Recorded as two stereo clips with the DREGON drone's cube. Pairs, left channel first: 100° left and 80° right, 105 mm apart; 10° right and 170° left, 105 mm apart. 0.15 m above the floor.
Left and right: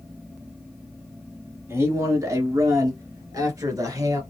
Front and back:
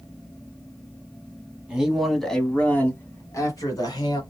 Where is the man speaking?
115° right, 1.4 m; by 4.2 s 35° right, 1.7 m.